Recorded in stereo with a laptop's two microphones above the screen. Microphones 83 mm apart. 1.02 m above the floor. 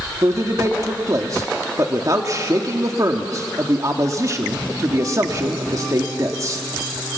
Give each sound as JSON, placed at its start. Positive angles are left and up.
{"t": 0.2, "sound": "a man speaking", "side_deg": -40, "distance_m": 1.9}